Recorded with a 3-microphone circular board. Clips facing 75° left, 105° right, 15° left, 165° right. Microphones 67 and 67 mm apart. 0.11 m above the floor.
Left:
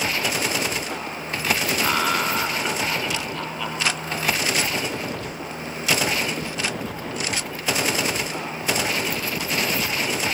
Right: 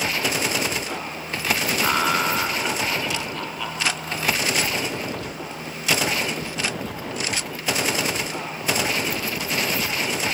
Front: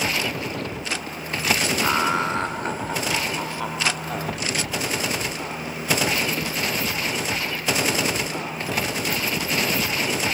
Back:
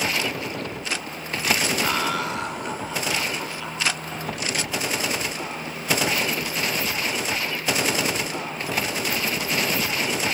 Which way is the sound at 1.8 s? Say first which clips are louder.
Right 2 dB, front 3 dB; 35° right.